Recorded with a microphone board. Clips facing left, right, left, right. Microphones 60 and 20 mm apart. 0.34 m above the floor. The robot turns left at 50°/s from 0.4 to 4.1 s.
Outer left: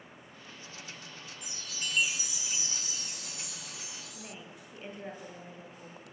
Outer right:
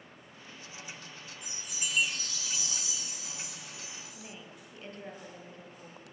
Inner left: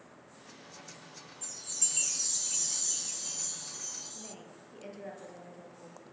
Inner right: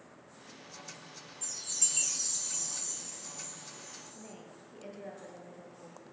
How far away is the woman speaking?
About 6 m.